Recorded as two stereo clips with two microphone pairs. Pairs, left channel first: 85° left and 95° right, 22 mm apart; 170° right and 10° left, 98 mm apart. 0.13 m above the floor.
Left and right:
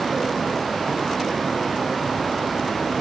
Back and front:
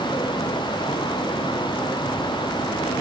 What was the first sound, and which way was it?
Only background noise.